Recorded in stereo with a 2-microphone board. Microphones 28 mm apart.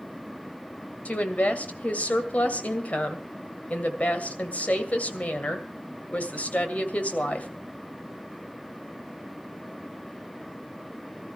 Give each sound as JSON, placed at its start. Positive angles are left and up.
{"t": 1.1, "sound": "a woman speaking", "side_deg": 55, "distance_m": 2.0}